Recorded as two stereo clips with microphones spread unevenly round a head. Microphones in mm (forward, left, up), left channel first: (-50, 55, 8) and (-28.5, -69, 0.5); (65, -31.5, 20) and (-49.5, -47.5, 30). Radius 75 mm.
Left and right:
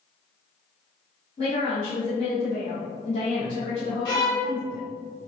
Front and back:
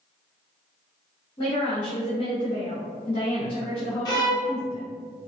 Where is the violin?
45° left, 1.0 m.